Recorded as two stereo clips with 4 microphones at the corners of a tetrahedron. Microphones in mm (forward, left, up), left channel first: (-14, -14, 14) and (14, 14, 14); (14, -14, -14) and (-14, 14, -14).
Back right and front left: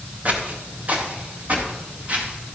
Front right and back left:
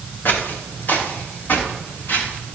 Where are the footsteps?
5° right, 2.5 m; by 2.6 s 10° right, 5 m.